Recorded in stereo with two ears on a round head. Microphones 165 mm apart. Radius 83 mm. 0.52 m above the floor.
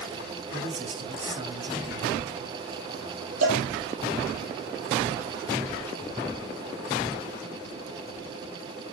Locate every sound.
0.5 s a man speaking: 35° right (ahead or behind), 4.5 m
3.4 s a cowbell: 75° right (ahead or behind), 6 m